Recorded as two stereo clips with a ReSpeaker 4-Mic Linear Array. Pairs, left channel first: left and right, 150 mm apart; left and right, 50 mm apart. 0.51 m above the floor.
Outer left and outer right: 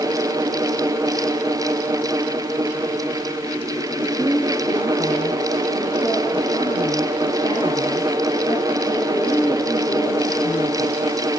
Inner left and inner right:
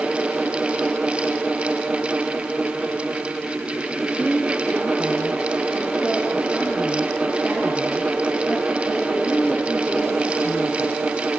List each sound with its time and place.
4.0 s a woman speaking: 45° right (ahead or behind), 7.5 m